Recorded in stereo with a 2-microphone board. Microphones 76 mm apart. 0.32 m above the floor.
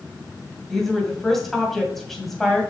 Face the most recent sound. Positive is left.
turn(degrees=5)  # may be behind; listen again after turning